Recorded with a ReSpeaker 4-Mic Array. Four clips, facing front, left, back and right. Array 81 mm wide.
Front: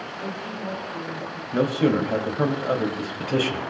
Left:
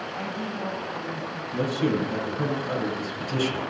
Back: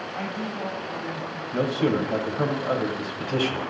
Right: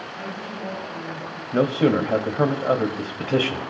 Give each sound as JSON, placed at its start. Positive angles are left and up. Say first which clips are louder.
{"t": 0.1, "sound": "a woman speaking", "louder": "left 1 dB, back 2 dB", "azimuth_deg": 140, "distance_m": 9.5}
{"t": 1.5, "sound": "a man speaking", "louder": "right 6 dB, front 3 dB", "azimuth_deg": -80, "distance_m": 1.2}